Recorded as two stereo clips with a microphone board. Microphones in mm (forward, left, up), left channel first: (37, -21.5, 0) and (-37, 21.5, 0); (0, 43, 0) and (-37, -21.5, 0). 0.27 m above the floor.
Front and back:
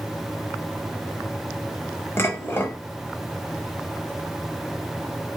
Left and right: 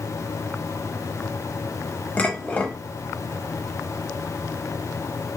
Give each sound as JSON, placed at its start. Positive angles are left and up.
{"t": 2.2, "sound": "dishes clattering", "azimuth_deg": 10, "distance_m": 0.8}